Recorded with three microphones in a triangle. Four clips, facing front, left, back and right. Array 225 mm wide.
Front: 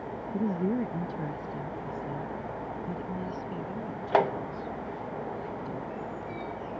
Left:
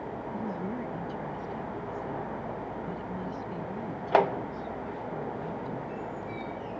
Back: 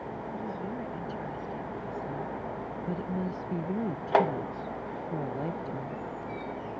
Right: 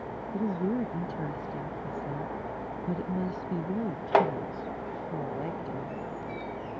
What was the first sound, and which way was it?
A woman speaking, 40° right.